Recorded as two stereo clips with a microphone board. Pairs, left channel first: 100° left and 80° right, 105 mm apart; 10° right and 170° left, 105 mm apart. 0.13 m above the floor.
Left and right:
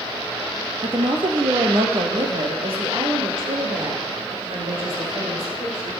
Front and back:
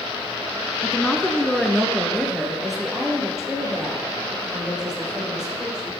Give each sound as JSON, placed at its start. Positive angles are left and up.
{"t": 0.8, "sound": "a woman speaking", "azimuth_deg": -75, "distance_m": 1.6}